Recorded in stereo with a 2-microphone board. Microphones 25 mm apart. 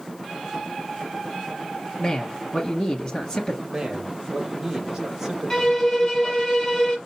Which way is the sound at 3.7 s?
15° right (ahead or behind).